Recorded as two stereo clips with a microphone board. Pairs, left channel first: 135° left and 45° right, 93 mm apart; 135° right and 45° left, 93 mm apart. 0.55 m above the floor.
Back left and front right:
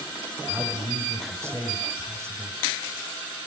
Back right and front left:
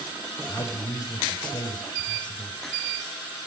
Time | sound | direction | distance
0.5 | a man speaking | 105° right | 3.5 m